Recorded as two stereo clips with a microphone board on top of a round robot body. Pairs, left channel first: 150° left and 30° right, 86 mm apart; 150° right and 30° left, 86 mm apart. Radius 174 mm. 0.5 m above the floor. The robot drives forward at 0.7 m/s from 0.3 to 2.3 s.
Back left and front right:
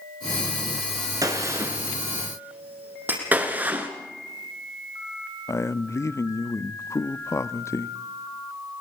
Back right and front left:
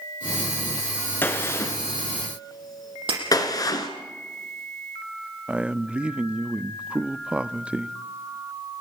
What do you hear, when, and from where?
1.2 s a gunshot: 80° right, 2 m; by 3.9 s 100° right, 2 m
3.1 s breaking glass: 40° left, 7 m
5.5 s a man speaking: 105° left, 0.9 m